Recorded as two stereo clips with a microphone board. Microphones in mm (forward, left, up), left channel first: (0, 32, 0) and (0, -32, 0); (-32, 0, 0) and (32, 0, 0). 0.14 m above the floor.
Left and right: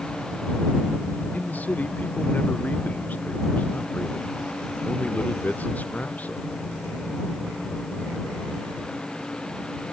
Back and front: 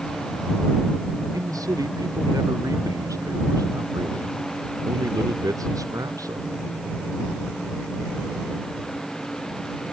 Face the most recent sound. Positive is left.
turn(degrees=25)